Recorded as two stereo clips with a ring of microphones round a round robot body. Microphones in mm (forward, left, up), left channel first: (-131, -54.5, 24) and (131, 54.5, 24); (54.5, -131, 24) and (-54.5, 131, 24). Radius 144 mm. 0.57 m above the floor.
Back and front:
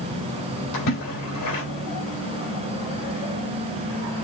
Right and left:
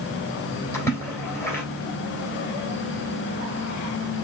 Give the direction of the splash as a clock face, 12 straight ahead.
5 o'clock.